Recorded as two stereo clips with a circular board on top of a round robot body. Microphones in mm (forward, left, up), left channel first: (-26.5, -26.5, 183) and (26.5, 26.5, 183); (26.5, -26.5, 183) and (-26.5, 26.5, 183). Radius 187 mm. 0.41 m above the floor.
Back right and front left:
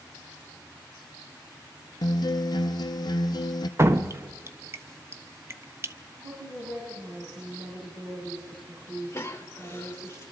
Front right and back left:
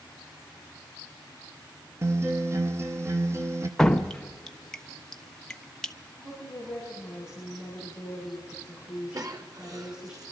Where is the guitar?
170° right, 0.5 m.